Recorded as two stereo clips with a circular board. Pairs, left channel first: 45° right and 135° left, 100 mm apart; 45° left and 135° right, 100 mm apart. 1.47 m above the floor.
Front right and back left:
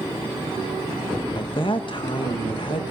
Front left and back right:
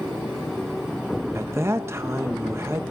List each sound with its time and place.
1.4 s a man speaking: 75° right, 1.2 m